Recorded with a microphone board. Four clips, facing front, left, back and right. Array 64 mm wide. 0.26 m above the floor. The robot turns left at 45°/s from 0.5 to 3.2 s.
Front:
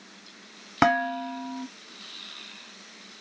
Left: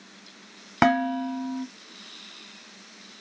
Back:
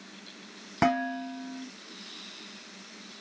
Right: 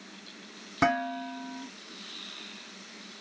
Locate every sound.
0.8 s dishes clattering: 60° left, 1.3 m; by 1.6 s 25° left, 1.3 m